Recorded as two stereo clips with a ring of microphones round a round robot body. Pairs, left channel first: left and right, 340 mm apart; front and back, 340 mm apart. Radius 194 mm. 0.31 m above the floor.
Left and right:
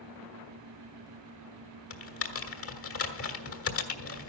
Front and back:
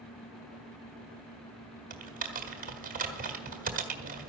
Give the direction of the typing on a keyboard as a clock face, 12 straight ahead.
8 o'clock.